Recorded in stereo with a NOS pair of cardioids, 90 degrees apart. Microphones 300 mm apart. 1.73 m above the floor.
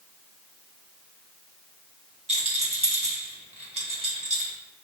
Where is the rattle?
20° right, 1.4 m.